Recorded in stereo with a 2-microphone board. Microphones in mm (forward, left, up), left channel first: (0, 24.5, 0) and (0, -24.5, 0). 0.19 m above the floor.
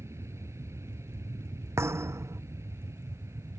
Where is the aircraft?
65° right (ahead or behind).